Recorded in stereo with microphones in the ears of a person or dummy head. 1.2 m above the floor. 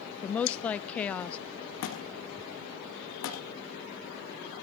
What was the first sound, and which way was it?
A woman speaking, 10° left (ahead or behind).